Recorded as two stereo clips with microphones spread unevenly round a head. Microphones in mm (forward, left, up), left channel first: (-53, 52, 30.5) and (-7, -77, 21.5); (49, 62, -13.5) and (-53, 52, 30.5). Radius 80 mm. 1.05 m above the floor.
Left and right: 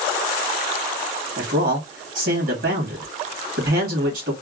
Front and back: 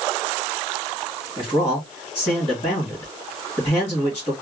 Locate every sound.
1.4 s a man speaking: 60° right, 1.7 m